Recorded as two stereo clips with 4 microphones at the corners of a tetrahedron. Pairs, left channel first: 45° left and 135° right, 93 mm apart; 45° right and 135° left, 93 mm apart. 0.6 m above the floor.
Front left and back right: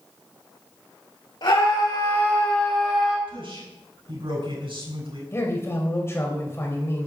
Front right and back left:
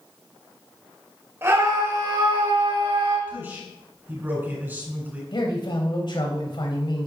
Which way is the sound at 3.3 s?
155° right.